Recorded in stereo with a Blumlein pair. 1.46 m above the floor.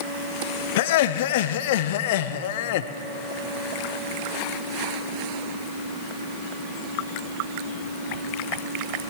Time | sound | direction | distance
0.8 | laughter | 55° left | 0.7 m